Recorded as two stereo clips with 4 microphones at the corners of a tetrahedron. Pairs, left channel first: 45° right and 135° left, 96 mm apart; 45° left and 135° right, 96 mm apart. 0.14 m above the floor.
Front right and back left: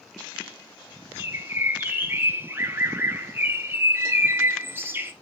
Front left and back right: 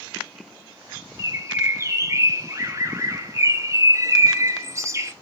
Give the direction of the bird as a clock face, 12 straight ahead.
6 o'clock.